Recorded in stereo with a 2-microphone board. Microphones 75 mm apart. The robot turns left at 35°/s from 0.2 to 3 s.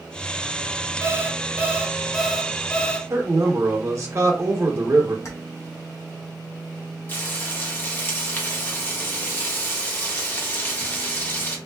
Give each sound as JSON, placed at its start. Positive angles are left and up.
{"t": 1.0, "sound": "an alarm clock", "azimuth_deg": -135, "distance_m": 0.5}
{"t": 3.1, "sound": "a man speaking", "side_deg": -40, "distance_m": 1.0}
{"t": 5.2, "sound": "keys jangling", "side_deg": 40, "distance_m": 0.8}
{"t": 7.1, "sound": "frying", "side_deg": 25, "distance_m": 0.9}